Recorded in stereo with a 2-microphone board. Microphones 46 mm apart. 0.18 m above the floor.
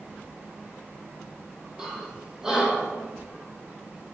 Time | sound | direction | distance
1.8 | breathing | 15° right (ahead or behind) | 1.1 m